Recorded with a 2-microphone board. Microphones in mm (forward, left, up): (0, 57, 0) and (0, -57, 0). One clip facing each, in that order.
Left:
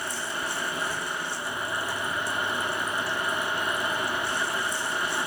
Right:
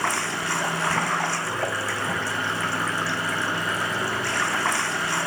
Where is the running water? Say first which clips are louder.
Right 6 dB; 70° right (ahead or behind).